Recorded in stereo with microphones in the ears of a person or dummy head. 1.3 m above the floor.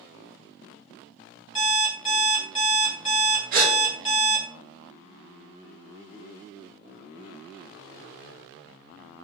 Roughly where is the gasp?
Right.